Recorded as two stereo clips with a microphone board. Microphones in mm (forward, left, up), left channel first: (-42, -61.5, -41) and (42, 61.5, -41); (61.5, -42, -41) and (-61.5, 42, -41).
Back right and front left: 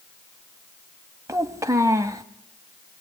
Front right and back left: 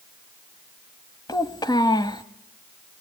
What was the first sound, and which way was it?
A child speaking, 5° left.